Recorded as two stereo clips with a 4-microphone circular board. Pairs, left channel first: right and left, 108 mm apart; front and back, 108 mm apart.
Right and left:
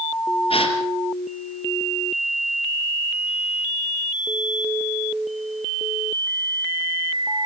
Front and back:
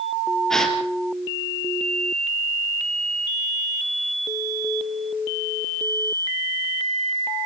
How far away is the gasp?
About 2.5 m.